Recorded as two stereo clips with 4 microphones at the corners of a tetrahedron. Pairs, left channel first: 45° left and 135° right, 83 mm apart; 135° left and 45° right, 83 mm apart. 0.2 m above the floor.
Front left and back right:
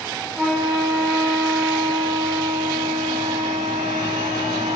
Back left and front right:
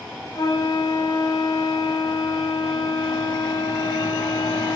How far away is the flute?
About 0.5 m.